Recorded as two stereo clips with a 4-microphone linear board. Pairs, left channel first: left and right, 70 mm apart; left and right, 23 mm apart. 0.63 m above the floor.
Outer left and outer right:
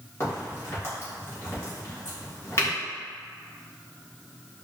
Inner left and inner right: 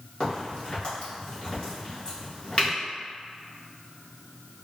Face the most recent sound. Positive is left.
turn(degrees=35)  # may be behind; listen again after turning